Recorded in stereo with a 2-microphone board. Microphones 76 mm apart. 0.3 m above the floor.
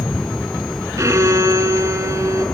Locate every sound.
1.0 s a violin: 45° right (ahead or behind), 1.4 m